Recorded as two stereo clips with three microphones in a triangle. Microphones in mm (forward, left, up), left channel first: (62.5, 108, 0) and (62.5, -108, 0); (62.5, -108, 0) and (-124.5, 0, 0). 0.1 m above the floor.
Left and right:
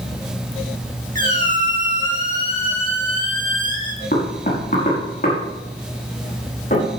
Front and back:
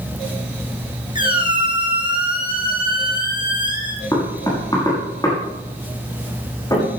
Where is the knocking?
40° left, 6 m.